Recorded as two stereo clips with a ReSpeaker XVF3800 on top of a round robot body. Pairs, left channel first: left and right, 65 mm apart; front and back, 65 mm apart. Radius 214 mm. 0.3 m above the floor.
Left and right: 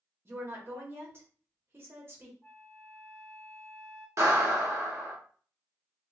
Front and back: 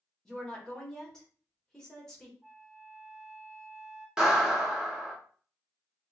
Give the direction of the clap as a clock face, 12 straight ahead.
3 o'clock.